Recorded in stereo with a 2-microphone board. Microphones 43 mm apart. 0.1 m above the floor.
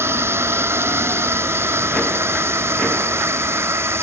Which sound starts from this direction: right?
A drone, at 0.0 s.